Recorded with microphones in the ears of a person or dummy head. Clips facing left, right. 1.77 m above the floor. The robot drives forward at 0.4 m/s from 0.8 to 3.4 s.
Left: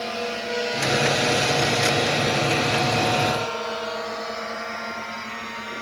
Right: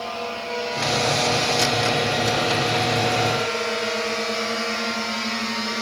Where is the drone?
25° left (ahead or behind); by 5.8 s 55° right (ahead or behind).